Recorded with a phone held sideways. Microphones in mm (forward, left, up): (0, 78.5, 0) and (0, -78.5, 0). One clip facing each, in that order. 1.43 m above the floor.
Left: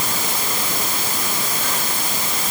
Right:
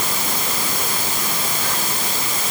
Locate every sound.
Only background noise.